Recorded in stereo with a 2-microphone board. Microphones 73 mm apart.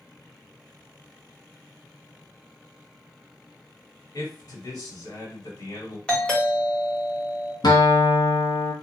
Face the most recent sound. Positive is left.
turn(degrees=75)  # may be behind; listen again after turning